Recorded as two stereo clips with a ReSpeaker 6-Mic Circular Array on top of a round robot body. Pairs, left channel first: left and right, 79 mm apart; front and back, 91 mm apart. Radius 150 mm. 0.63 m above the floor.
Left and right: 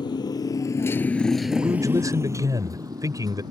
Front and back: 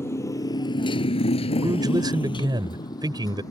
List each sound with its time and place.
0.0 s a motorcycle: 60° left; by 3.5 s 55° right
1.6 s a man speaking: 135° right